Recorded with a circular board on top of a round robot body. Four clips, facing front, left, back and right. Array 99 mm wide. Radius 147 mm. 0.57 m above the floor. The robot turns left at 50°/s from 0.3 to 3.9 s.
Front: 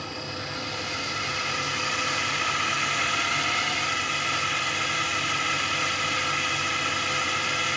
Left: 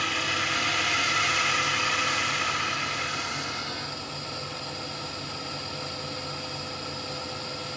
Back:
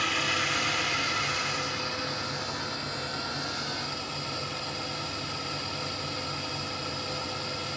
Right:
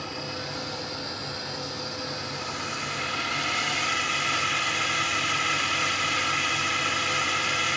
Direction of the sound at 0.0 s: 135° left.